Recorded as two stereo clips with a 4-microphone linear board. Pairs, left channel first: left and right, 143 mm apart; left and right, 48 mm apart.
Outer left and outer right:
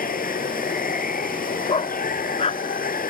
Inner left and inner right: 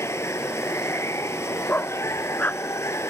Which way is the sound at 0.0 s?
80° left.